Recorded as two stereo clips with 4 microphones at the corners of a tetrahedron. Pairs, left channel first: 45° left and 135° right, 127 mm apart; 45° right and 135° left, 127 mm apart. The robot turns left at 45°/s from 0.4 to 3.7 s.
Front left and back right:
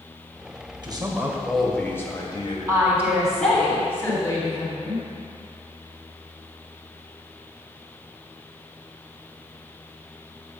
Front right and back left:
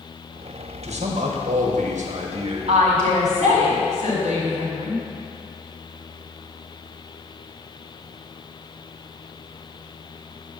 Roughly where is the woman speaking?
Behind.